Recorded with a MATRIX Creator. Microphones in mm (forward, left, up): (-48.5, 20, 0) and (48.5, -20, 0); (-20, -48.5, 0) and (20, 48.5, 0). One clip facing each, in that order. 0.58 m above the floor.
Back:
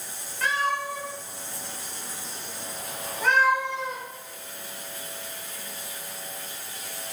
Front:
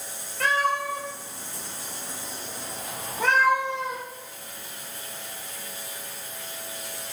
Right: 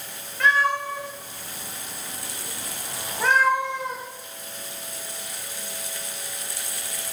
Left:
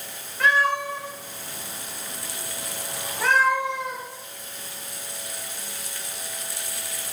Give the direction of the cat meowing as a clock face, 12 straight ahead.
1 o'clock.